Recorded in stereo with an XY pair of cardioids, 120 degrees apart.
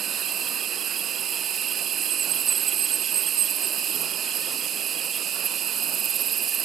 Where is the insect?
55° right.